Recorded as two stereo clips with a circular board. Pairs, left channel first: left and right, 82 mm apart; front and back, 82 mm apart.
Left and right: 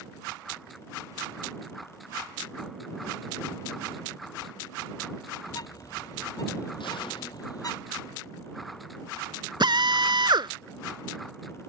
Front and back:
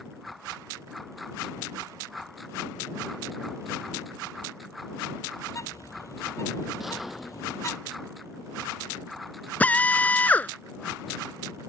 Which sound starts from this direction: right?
A drill, at 9.6 s.